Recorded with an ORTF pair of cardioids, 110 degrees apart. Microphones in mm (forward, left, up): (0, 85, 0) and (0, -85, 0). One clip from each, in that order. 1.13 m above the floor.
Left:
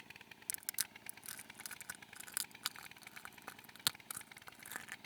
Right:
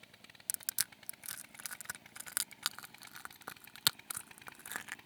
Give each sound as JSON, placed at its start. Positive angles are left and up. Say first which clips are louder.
{"t": 0.5, "sound": "crushing", "louder": "right 4 dB", "azimuth_deg": -20}